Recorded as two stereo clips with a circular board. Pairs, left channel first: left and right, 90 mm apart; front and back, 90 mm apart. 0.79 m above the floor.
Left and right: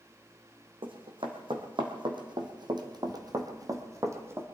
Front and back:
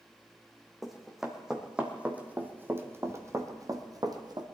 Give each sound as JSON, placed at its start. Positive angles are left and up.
{"t": 0.8, "sound": "running footsteps", "azimuth_deg": -90, "distance_m": 2.0}